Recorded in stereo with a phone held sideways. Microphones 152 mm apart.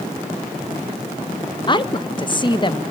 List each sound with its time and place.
1.7 s a woman speaking: 30° left (ahead or behind), 0.6 m